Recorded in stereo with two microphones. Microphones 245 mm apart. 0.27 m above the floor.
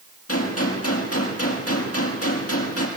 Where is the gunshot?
70° left (ahead or behind), 5.5 m.